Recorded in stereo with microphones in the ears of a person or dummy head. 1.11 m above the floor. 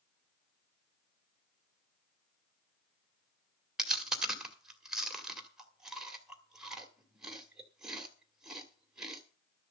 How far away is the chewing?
About 2 m.